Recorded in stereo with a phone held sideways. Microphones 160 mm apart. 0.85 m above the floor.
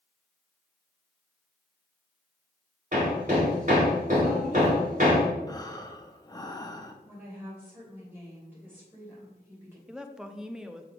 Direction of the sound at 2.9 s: 50° right (ahead or behind).